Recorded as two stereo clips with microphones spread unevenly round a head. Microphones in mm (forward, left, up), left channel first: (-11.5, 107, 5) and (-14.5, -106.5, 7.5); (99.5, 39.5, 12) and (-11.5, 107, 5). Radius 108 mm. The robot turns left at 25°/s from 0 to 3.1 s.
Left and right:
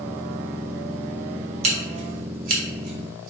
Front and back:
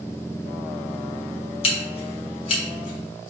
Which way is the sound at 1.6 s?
45° right.